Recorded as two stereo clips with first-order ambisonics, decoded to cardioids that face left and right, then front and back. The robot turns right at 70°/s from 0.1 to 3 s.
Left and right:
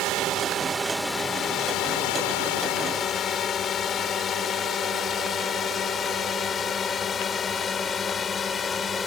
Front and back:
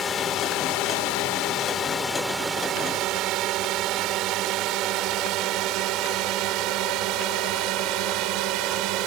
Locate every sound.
0.0 s a drone: 65° right; by 9.1 s 160° left